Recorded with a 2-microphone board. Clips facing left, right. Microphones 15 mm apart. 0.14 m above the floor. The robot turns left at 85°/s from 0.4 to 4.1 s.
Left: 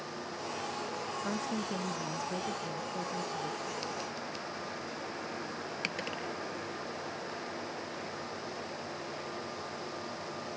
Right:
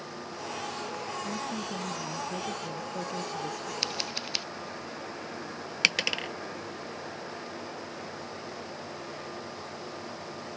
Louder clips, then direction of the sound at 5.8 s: Right 13 dB; 65° right (ahead or behind).